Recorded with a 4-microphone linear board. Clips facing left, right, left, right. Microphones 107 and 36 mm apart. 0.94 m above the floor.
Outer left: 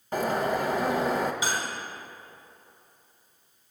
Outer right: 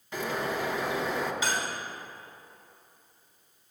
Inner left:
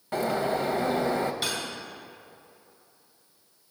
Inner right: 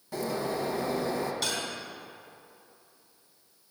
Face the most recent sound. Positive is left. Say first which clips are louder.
# outer left 1 dB, inner left 1 dB
turn(degrees=15)  # may be behind; listen again after turning